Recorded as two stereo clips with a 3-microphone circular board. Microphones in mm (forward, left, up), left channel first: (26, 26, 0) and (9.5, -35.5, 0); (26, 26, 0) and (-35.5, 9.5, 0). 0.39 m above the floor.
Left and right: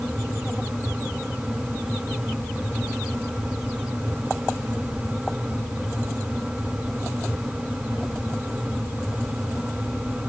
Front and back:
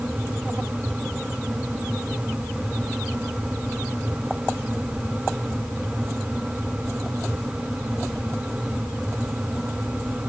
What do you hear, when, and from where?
Only background noise.